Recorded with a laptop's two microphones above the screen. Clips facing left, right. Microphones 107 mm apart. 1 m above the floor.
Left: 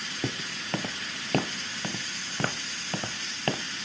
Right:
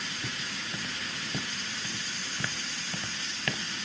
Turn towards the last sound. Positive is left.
turn(degrees=35)  # may be behind; listen again after turning